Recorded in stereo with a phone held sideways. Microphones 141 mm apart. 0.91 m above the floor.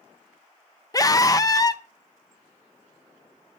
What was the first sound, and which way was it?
A scream, 25° left (ahead or behind).